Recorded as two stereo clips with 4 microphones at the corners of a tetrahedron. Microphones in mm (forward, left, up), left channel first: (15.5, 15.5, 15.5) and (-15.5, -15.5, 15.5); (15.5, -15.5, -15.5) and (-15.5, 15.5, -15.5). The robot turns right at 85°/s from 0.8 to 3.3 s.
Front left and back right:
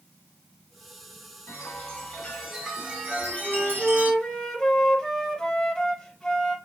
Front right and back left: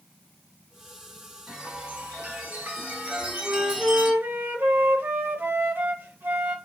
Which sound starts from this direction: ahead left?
A chime, at 1.5 s.